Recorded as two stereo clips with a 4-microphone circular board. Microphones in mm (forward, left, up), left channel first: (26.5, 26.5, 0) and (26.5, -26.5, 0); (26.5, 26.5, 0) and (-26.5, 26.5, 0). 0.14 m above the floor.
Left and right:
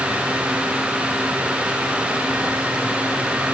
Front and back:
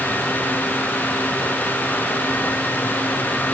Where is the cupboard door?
No cupboard door in this recording.